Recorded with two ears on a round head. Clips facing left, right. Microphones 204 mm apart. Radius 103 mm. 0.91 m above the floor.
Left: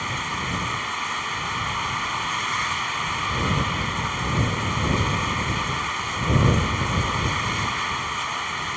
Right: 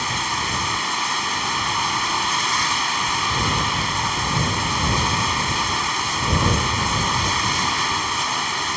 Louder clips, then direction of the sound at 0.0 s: Right 3 dB; 60° right (ahead or behind).